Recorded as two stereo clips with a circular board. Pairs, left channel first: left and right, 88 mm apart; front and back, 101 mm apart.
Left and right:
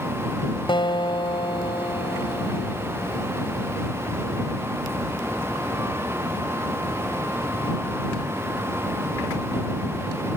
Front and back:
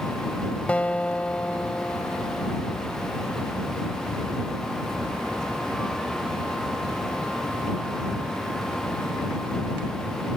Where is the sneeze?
No sneeze in this recording.